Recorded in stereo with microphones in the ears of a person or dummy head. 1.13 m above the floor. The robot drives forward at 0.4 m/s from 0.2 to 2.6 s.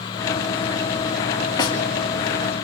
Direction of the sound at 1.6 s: 20° left (ahead or behind).